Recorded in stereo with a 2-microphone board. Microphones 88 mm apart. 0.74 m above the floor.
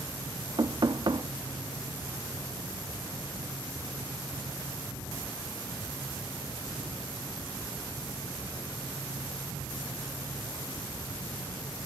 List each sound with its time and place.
0.6 s knocking: 55° right (ahead or behind), 0.8 m